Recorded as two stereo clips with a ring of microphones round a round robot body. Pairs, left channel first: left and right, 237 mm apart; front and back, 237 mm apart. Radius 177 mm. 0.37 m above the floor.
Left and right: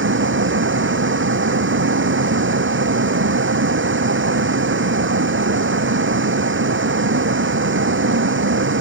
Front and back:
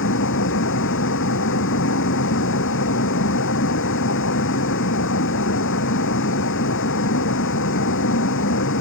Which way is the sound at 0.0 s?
55° right.